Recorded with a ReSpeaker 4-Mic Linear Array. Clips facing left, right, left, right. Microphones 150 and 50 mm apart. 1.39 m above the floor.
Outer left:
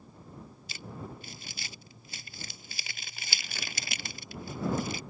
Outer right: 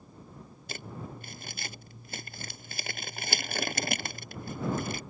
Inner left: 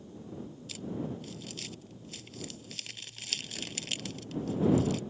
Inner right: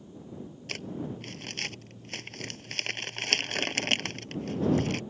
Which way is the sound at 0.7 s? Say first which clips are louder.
Outer right 2 dB, inner right 1 dB; 50° right (ahead or behind).